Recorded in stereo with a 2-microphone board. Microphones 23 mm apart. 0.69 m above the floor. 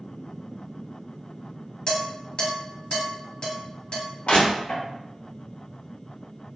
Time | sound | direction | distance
1.9 | dishes clattering | 45° left (ahead or behind) | 1.4 m
4.3 | crushing | 70° left (ahead or behind) | 1.2 m